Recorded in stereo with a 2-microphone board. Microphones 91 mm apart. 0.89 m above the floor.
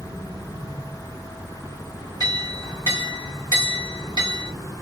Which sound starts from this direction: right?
A clink, at 2.2 s.